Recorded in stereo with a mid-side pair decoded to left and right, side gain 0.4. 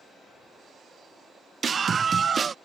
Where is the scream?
45° right.